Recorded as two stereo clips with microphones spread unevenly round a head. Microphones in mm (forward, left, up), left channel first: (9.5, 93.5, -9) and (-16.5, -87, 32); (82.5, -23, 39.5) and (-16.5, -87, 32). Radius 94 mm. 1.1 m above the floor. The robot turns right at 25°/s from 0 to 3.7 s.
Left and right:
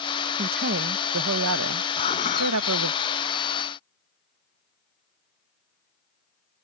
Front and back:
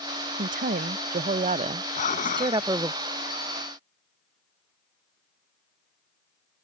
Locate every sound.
0.4 s a woman speaking: 145° right; by 3.0 s 80° right
2.0 s dishes clattering: 15° left; by 2.7 s 35° left